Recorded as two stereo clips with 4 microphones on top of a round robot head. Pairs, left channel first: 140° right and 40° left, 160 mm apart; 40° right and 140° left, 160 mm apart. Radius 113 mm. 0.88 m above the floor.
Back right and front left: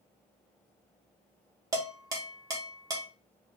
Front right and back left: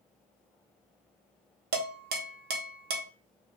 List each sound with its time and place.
1.7 s dishes clattering: 110° left, 0.6 m